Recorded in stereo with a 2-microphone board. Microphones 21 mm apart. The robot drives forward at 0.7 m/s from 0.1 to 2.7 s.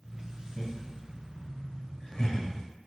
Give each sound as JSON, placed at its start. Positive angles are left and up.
{"t": 0.6, "sound": "laughter", "side_deg": 20, "distance_m": 2.0}